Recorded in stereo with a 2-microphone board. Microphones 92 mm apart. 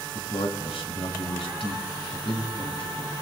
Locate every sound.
0.1 s a man speaking: 70° left (ahead or behind), 3 m